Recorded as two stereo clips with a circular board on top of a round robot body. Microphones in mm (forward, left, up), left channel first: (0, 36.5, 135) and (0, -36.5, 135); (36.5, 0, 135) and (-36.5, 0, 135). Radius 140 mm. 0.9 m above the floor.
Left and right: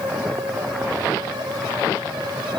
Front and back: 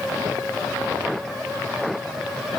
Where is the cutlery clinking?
No cutlery clinking in this recording.